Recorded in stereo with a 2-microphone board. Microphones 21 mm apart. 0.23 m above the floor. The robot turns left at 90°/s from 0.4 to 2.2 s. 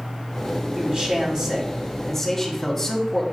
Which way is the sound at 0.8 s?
85° right.